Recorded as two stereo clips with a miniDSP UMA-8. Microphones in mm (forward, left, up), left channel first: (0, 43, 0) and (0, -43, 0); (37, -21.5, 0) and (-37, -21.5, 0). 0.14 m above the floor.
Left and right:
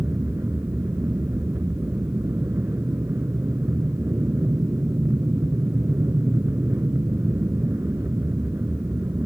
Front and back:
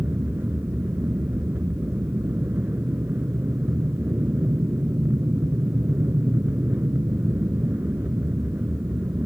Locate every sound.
0.0 s an aircraft: 135° right